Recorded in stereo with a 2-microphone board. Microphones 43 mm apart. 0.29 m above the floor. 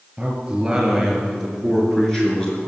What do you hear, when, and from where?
0.2 s a man speaking: 20° right (ahead or behind), 5.5 m; by 2.7 s 25° left (ahead or behind), 4 m